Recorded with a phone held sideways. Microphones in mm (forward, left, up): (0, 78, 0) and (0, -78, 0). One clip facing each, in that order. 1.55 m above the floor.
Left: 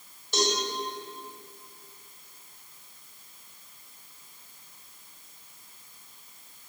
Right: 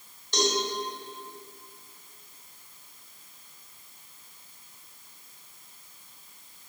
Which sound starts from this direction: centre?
A cowbell, at 0.3 s.